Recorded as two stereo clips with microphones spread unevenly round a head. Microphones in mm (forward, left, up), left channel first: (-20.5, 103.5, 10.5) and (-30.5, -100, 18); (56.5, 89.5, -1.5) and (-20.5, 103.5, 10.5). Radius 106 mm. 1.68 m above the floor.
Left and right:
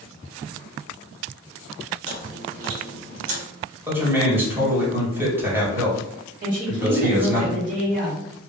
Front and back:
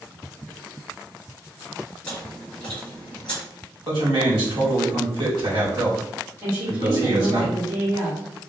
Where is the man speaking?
170° right, 2.0 m.